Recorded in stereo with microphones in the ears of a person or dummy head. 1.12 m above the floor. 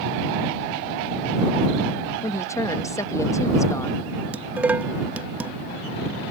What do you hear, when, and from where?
2.2 s a woman speaking: 15° left (ahead or behind)
4.3 s dishes clattering: 5° right (ahead or behind)